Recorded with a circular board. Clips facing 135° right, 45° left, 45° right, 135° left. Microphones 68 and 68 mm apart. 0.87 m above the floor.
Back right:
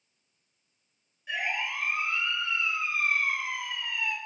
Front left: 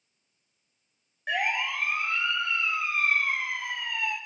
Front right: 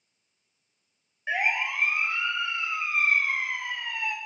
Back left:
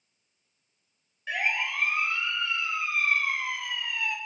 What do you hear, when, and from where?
1.3 s a siren: 20° left, 9 m; by 4.2 s 5° left, 7 m